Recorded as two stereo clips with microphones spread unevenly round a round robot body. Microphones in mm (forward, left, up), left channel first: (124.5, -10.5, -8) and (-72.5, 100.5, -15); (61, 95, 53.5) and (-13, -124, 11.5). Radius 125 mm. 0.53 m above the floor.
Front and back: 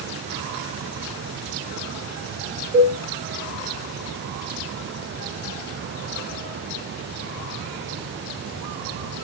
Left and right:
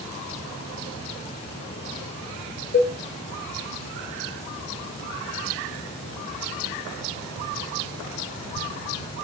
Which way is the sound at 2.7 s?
115° left.